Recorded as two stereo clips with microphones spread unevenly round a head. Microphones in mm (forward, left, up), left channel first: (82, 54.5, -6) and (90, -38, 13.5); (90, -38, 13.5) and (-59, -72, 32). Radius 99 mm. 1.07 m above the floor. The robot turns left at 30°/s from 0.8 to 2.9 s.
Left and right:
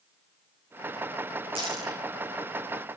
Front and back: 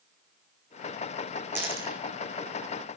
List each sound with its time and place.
1.6 s a dropped coin: 95° right, 3.5 m; by 2.0 s 110° right, 3.5 m